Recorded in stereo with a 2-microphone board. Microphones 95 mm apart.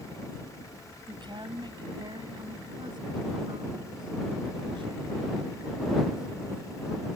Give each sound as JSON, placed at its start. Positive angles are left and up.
{"t": 1.1, "sound": "a woman speaking", "side_deg": -55}